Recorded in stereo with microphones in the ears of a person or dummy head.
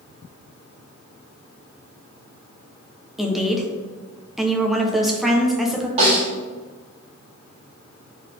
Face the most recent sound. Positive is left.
turn(degrees=-35)  # may be behind; listen again after turning